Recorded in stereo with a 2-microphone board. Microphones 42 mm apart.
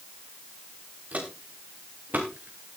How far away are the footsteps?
About 5 m.